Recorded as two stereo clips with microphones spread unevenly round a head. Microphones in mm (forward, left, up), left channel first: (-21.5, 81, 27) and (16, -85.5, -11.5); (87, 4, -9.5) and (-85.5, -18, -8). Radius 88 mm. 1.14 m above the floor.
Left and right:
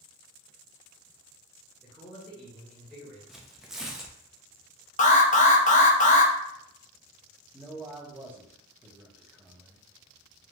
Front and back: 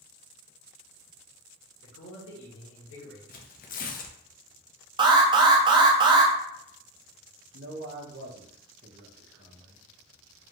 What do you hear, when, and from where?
1.8 s a man speaking: 10° left, 1.8 m
3.3 s tearing paper: 5° right, 0.5 m
5.0 s an alarm: 140° left, 0.6 m
7.5 s a man speaking: 150° right, 1.1 m